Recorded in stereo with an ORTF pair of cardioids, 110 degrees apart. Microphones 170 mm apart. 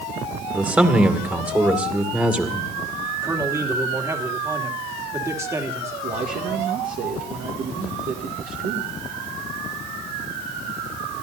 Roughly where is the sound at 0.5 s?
Ahead.